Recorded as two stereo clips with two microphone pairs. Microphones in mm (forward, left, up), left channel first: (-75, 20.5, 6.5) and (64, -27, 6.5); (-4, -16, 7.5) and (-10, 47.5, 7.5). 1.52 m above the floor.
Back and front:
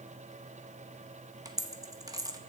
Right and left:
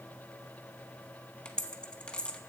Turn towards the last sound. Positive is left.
turn(degrees=-35)